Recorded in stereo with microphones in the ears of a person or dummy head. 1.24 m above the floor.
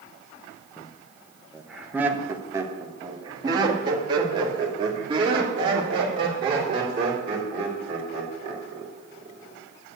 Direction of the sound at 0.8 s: 10° left (ahead or behind).